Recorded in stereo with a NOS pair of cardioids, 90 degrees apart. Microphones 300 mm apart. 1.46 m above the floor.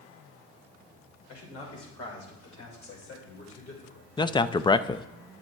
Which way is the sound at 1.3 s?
60° left.